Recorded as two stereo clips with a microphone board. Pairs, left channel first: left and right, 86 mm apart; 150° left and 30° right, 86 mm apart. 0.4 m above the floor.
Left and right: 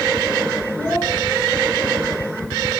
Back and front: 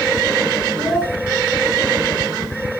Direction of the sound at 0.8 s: 155° left.